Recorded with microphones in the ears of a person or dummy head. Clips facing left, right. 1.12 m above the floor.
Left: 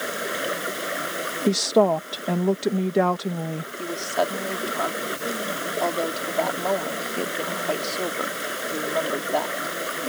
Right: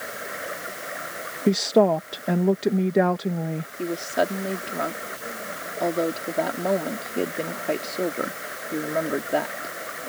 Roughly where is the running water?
Left.